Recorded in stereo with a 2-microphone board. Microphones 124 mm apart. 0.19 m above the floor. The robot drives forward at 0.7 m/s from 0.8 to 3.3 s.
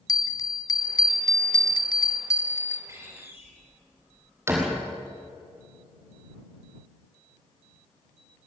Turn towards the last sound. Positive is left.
turn(degrees=-20)  # may be behind; listen again after turning